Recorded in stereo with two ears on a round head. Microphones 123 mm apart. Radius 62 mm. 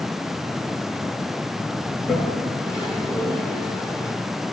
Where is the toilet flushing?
20° left (ahead or behind), 1.5 m.